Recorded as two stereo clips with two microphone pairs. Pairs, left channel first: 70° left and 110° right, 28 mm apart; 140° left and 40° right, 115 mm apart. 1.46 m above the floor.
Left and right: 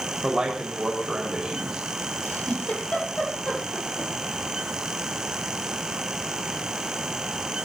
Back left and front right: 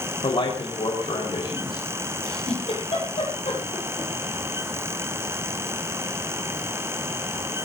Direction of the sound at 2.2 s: 110° left.